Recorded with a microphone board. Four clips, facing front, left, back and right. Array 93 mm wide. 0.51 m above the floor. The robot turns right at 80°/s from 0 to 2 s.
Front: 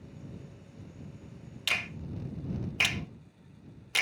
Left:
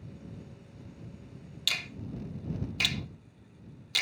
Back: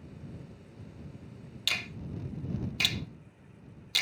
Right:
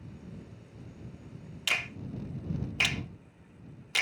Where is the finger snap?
65° right; by 4.0 s 40° right.